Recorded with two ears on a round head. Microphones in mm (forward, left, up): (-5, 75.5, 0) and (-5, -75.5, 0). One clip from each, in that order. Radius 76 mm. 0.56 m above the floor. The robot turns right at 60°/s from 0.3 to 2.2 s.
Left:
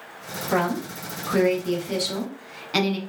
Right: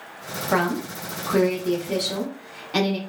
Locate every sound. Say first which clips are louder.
0.5 s a woman speaking: right 1 dB; 40° right, 0.7 m; by 3.0 s 60° left, 0.7 m